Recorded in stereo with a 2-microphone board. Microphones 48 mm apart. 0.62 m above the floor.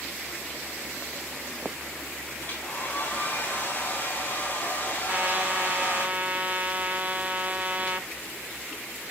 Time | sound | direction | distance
2.4 | a hair dryer | 30° left (ahead or behind) | 3 m
5.1 | a trumpet | 30° right (ahead or behind) | 0.8 m